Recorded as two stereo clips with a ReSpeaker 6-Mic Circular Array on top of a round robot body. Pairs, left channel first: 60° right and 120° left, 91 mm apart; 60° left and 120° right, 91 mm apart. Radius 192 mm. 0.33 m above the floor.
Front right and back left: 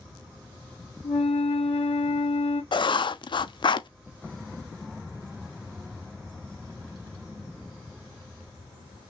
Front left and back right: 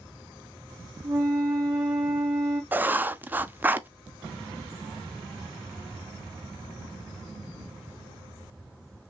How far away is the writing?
About 0.6 m.